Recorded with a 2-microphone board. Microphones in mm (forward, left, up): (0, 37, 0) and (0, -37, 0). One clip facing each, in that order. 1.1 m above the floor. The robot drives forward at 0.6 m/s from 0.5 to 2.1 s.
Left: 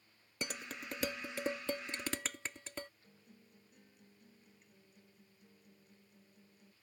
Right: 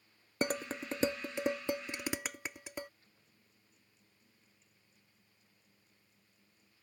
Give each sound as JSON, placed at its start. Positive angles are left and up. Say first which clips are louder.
{"t": 0.4, "sound": "dishes clattering", "louder": "right 9 dB", "side_deg": -45}
{"t": 3.0, "sound": "a guitar", "louder": "left 7 dB", "side_deg": 65}